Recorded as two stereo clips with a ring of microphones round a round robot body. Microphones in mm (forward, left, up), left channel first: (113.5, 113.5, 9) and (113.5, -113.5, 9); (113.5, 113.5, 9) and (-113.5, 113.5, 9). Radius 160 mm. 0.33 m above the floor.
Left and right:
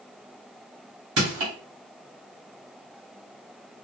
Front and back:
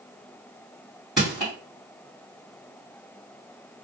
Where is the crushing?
90° right, 1.8 m.